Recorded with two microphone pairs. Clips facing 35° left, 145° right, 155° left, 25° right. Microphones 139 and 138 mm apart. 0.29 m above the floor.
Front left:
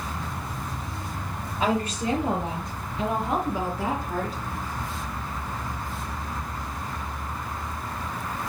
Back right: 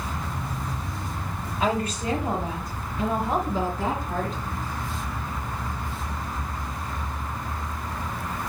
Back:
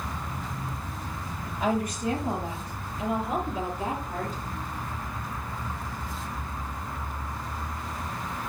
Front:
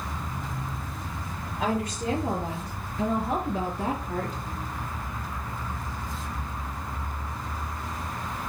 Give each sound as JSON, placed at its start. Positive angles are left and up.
{"t": 1.6, "sound": "a woman speaking", "azimuth_deg": -20, "distance_m": 6.0}